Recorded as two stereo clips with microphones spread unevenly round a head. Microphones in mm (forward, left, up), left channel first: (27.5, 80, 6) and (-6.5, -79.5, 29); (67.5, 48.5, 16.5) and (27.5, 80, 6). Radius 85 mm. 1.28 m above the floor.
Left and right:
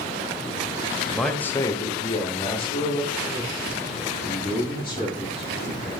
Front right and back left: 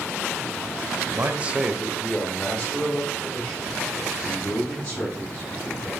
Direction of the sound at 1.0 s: 165° left.